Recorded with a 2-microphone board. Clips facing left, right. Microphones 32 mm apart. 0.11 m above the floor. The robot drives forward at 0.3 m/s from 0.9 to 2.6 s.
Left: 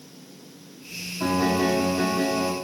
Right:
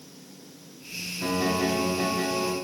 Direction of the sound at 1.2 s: 70° left (ahead or behind).